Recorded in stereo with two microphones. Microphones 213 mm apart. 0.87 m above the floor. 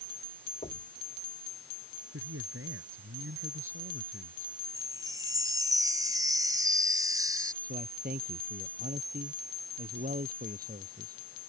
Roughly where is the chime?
Centre.